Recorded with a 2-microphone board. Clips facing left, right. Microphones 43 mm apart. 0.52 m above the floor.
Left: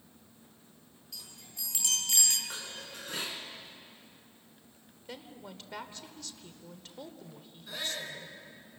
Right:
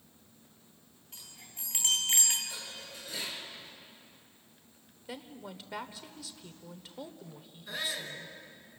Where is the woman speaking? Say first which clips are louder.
Right 2 dB; 5° right (ahead or behind), 1.3 m.